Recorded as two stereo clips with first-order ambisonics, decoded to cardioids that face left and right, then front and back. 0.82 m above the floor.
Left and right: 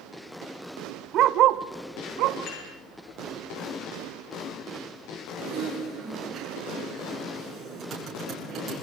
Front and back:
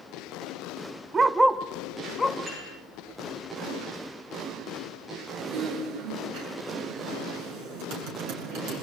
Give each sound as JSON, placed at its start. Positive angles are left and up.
{"t": 1.1, "sound": "a dog barking", "azimuth_deg": -115, "distance_m": 0.6}
{"t": 2.5, "sound": "dishes clattering", "azimuth_deg": 105, "distance_m": 9.0}
{"t": 5.4, "sound": "typing on a keyboard", "azimuth_deg": -155, "distance_m": 6.5}